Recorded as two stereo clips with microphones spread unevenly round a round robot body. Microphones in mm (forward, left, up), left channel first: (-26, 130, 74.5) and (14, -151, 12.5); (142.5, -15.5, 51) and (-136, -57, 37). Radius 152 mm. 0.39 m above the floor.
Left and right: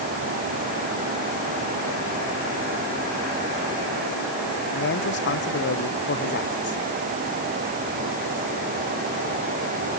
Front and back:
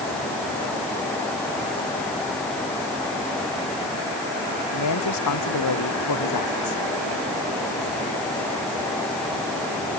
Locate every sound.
4.7 s a man speaking: 45° left